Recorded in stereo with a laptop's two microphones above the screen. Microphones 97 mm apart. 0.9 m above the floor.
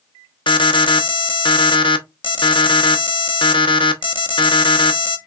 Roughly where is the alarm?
Left.